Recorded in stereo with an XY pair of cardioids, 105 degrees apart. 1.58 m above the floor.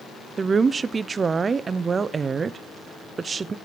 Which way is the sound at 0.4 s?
40° right.